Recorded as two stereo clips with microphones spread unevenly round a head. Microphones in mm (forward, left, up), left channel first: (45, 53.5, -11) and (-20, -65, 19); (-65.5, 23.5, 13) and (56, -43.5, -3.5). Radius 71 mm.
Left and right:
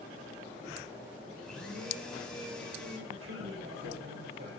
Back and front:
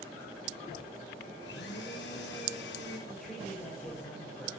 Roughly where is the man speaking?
Behind right.